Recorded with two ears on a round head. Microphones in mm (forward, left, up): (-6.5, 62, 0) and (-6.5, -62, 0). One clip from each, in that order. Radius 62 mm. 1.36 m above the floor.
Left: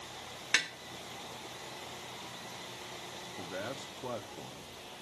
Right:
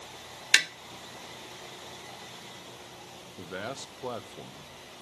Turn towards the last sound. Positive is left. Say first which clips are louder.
# right 3 dB
turn(degrees=-70)  # may be behind; listen again after turning